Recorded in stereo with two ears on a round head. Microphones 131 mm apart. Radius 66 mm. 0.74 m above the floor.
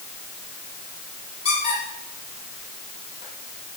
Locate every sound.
1.4 s a squeak: 50° left (ahead or behind), 9 m